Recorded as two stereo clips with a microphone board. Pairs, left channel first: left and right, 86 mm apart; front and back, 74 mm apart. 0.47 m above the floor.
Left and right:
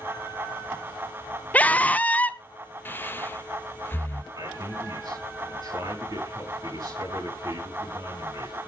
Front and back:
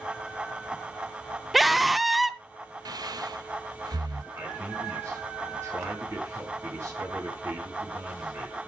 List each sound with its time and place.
1.5 s a scream: 90° left, 0.7 m
2.9 s breathing: 155° left, 0.6 m
4.3 s a man speaking: 125° right, 6.5 m